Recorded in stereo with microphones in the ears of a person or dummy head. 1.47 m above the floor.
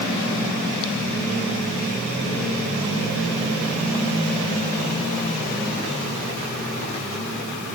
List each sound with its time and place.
Only background noise.